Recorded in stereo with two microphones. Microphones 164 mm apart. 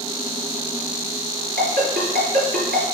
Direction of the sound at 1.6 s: 70° right (ahead or behind).